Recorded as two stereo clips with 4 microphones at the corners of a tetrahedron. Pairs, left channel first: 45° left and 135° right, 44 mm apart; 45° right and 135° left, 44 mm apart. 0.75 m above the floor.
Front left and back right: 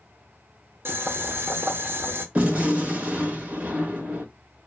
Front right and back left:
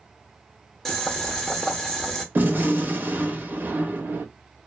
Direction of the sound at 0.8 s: 125° right.